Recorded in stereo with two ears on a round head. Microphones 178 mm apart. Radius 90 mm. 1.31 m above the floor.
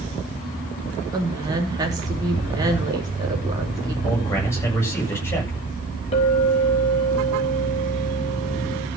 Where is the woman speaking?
20° right (ahead or behind), 3.5 m.